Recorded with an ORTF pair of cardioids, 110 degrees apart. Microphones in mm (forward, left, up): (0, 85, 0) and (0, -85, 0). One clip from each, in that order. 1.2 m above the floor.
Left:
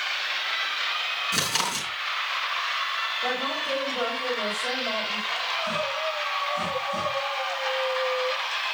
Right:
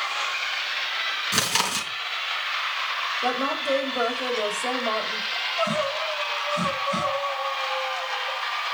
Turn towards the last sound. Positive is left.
turn(degrees=-50)